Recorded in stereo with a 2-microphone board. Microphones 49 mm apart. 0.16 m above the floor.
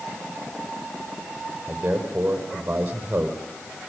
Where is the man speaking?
25° right (ahead or behind), 6.5 m.